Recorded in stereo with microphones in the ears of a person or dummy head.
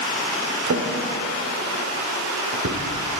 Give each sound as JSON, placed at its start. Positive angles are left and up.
{"t": 0.7, "sound": "a drawer", "side_deg": -65, "distance_m": 3.0}